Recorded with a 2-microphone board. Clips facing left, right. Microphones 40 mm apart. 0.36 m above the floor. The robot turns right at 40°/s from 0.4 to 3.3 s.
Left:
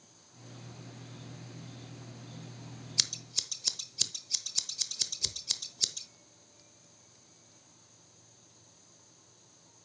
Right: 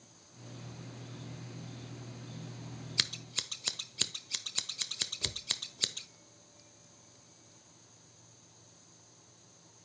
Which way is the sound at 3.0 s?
25° right (ahead or behind).